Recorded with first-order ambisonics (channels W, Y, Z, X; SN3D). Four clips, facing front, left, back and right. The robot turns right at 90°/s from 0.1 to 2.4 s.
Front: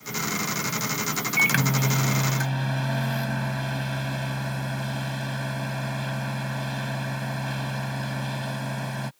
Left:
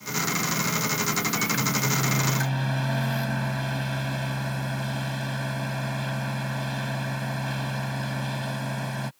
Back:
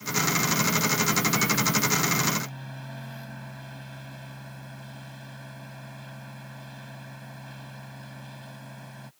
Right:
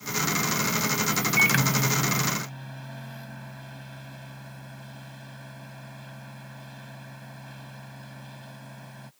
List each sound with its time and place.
1.4 s a microwave: 50° right; by 9.1 s 45° left